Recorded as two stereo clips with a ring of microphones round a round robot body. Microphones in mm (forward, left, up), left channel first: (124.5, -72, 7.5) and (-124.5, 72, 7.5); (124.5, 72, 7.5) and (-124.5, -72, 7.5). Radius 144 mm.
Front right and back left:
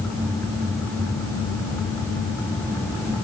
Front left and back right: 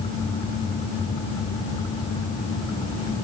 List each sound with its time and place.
Only background noise.